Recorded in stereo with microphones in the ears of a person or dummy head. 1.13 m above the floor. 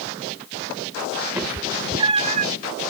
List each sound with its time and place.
1.4 s a cat meowing: 10° right (ahead or behind); by 2.5 s 45° right (ahead or behind)